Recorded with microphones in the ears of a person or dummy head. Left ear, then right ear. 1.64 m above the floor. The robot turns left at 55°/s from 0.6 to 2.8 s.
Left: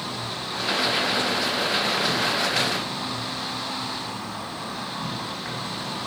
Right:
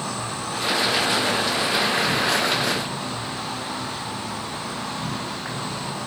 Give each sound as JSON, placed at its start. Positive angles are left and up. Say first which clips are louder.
{"t": 0.0, "sound": "an insect", "louder": "right 2 dB", "azimuth_deg": -50, "distance_m": 4.0}